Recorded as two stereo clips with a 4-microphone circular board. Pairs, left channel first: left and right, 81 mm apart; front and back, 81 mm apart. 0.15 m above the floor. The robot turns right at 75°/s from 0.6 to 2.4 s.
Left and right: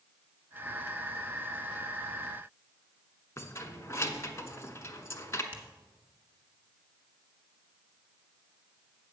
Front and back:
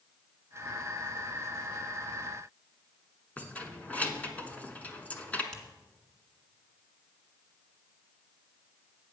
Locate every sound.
3.4 s keys jangling: 60° left, 0.9 m
5.5 s a finger snap: 75° right, 1.6 m